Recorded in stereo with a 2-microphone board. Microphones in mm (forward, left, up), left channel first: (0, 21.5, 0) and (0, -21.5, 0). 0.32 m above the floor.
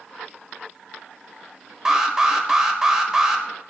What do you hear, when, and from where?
1.9 s an alarm: 15° right (ahead or behind), 0.8 m